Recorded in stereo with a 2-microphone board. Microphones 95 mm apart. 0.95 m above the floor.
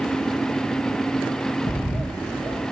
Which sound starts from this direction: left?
A bird, at 1.7 s.